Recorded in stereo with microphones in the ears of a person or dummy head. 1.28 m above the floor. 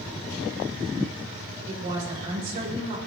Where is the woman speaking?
40° right (ahead or behind), 5.5 m.